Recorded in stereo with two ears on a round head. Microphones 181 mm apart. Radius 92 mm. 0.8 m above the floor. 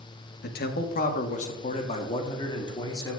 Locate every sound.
0.4 s a man speaking: 55° left (ahead or behind), 1.3 m; by 3.2 s 20° left (ahead or behind), 2 m